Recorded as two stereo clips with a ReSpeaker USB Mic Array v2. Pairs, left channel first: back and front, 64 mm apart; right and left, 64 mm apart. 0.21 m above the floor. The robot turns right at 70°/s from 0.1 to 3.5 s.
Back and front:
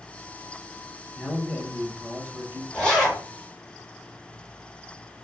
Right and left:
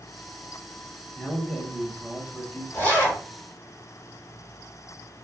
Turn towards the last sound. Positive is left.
turn(degrees=-60)